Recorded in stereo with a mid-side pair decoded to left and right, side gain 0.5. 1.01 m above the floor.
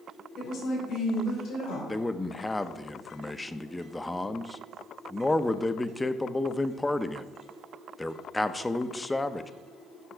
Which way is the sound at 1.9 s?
15° left.